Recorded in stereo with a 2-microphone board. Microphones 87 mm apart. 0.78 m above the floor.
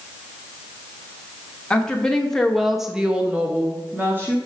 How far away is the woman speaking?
About 1.2 m.